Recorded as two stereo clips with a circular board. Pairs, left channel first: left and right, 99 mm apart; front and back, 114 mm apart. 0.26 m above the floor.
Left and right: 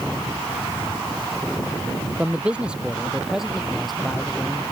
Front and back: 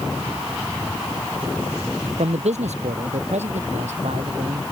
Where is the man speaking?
165° right; by 4.6 s 175° left.